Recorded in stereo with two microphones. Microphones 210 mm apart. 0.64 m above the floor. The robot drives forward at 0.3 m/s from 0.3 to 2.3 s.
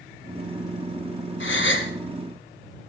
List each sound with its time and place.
1.4 s a gasp: 65° left (ahead or behind), 1.6 m; by 1.9 s 70° left (ahead or behind), 1.6 m